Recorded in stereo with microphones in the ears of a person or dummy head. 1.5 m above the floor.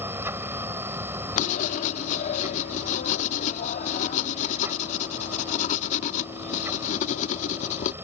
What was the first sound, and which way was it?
A machine running, 20° right (ahead or behind).